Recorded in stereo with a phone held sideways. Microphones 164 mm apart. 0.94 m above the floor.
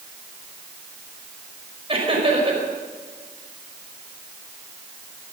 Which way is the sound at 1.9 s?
35° right (ahead or behind).